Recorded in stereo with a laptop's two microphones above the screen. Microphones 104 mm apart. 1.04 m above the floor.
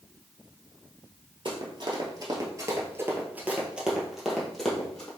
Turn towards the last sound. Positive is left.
turn(degrees=10)  # may be behind; listen again after turning